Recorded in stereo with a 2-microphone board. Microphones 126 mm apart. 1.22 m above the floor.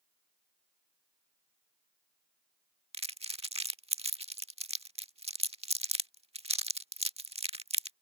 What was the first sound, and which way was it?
Crumpling, 55° right (ahead or behind).